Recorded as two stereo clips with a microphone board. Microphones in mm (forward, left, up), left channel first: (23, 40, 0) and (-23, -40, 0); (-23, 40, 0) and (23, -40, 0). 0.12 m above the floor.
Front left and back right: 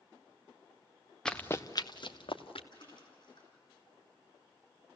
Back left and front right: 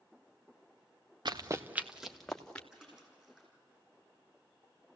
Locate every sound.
1.2 s running footsteps: 25° right, 0.9 m; by 2.6 s 40° left, 1.9 m
2.7 s a splash: 25° left, 7 m